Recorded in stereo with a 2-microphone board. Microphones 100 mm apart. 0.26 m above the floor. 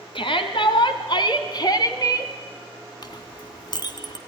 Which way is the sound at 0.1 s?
60° left (ahead or behind).